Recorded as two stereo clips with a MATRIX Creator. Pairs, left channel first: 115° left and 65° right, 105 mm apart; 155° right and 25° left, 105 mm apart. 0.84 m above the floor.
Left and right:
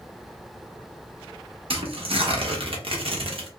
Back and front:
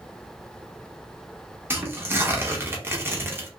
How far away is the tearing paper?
About 0.9 m.